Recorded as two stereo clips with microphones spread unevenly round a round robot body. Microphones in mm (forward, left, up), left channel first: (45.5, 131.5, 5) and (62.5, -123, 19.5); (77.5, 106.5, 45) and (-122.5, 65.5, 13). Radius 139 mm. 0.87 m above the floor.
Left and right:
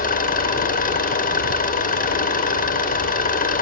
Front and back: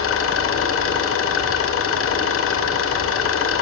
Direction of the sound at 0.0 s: 35° left.